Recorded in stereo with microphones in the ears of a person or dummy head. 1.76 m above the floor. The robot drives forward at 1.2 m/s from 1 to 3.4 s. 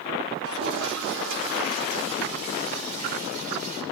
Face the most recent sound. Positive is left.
turn(degrees=-55)  # may be behind; listen again after turning